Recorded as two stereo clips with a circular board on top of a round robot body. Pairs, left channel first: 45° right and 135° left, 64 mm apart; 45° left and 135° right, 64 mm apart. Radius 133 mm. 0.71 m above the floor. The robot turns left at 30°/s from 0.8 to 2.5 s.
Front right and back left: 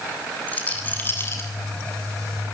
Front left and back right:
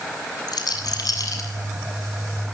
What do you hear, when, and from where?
0.5 s a rattle: 25° left, 8 m; by 1.5 s straight ahead, 8 m